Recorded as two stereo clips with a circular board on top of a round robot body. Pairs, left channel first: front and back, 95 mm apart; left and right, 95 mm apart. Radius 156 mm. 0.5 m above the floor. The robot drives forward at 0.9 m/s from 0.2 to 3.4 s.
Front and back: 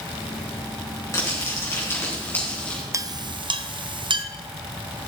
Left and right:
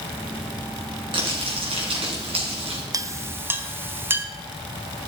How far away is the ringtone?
I don't hear a ringtone.